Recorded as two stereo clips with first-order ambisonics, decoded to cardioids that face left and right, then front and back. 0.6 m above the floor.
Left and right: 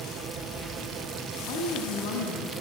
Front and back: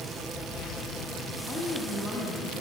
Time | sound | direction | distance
1.5 | a woman speaking | 75° left | 4 m